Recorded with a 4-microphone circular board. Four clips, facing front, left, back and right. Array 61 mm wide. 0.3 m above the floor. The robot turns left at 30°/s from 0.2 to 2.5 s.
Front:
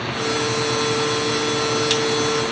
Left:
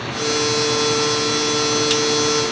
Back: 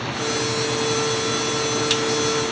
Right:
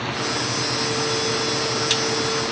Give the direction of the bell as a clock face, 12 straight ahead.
No bell in this recording.